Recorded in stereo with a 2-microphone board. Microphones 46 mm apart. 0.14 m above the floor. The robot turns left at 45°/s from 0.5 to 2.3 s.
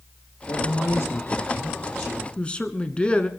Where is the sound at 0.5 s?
95° left, 5 m; by 2.3 s 15° left, 5 m.